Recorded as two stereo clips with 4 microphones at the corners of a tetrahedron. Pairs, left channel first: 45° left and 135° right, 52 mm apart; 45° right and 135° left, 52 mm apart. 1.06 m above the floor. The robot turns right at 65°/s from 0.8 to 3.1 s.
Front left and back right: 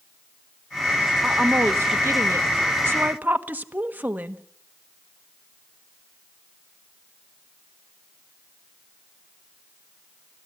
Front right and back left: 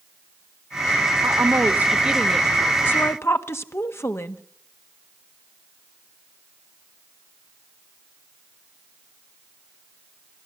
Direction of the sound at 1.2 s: 155° left.